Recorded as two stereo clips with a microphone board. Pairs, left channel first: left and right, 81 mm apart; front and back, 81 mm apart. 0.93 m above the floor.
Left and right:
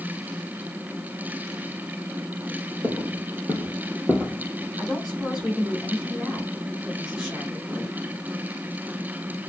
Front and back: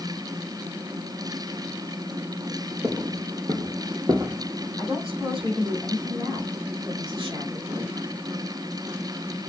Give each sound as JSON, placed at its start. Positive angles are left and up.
{"t": 2.8, "sound": "footsteps", "azimuth_deg": -155, "distance_m": 2.0}
{"t": 4.8, "sound": "a woman speaking", "azimuth_deg": -175, "distance_m": 3.0}